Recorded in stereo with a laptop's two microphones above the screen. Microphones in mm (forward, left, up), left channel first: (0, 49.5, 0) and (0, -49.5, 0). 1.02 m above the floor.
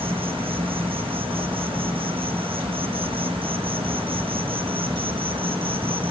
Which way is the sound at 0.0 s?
75° right (ahead or behind).